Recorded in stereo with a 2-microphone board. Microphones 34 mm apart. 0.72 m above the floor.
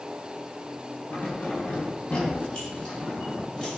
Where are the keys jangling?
45° left (ahead or behind), 3 m; by 3.8 s 25° left (ahead or behind), 5 m.